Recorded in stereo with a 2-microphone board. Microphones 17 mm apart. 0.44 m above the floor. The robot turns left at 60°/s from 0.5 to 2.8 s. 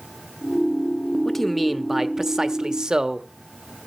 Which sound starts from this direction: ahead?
A man speaking, at 1.2 s.